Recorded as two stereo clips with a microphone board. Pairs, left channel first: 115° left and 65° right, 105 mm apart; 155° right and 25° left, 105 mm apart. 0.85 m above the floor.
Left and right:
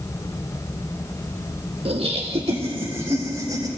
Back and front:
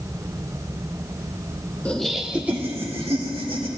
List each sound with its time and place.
1.9 s laughter: 80° right, 1.5 m; by 3.7 s 25° right, 3.5 m